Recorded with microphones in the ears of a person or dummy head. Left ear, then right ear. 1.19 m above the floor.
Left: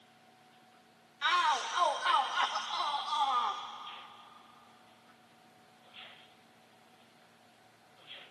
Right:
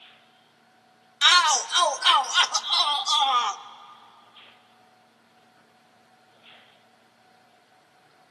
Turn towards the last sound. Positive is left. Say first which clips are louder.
# right 11 dB
turn(degrees=-75)  # may be behind; listen again after turning